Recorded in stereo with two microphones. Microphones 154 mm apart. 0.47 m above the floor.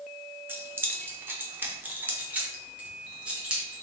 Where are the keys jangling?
15° right (ahead or behind), 0.7 m; by 3.8 s 5° right (ahead or behind), 1.7 m.